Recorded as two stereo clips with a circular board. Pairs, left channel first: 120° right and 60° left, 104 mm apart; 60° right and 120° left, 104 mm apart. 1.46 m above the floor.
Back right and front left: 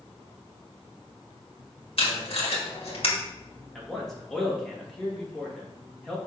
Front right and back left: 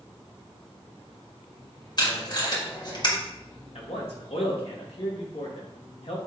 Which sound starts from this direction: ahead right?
A man speaking, at 3.8 s.